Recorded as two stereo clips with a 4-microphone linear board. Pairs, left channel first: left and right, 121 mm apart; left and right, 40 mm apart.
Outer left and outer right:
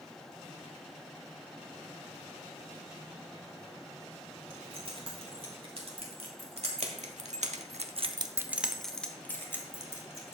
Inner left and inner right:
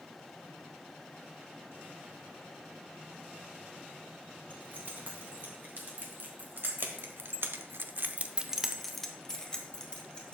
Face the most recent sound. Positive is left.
turn(degrees=25)  # may be behind; listen again after turning